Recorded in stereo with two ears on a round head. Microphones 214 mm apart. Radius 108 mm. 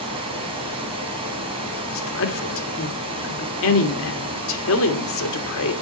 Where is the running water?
25° right (ahead or behind), 2.5 m.